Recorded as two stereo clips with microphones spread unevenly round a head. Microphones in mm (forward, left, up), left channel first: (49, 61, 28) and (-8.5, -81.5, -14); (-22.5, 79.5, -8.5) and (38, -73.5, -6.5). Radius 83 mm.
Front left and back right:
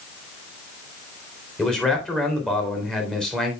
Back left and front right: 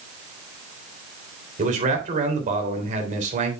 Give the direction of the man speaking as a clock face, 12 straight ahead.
1 o'clock.